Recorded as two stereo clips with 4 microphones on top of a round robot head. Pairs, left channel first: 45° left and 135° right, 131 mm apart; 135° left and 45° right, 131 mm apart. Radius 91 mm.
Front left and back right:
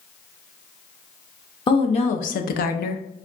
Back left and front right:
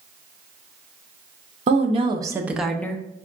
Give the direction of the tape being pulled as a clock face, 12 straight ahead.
No tape being pulled in this recording.